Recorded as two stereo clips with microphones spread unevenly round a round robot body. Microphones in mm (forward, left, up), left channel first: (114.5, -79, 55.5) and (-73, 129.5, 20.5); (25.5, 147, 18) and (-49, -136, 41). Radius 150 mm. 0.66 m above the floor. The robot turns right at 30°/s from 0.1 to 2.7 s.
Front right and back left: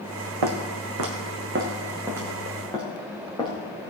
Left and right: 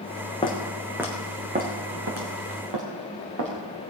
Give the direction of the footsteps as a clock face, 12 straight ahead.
7 o'clock.